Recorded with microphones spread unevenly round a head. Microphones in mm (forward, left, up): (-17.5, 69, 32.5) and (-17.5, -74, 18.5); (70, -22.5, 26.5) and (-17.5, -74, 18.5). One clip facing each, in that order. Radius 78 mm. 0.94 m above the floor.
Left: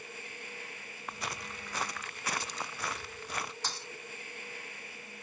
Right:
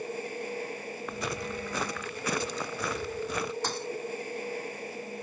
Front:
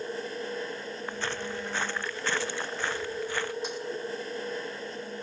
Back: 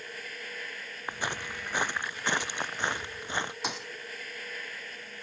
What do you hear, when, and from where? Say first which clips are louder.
0.0 s a machine running: right 13 dB, front 9 dB; 30° right
1.1 s footsteps: right 6 dB, even; 75° right; by 3.5 s 80° right
3.6 s a thud: right 9 dB, front 2 dB; 130° right